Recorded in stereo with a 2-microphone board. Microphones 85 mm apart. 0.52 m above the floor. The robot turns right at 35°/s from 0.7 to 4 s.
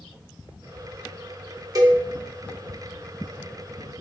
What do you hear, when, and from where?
1.8 s a cowbell: 45° right (ahead or behind), 0.6 m